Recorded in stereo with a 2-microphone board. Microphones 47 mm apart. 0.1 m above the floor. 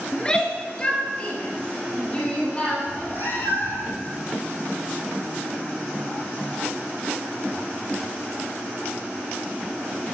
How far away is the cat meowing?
About 2.5 m.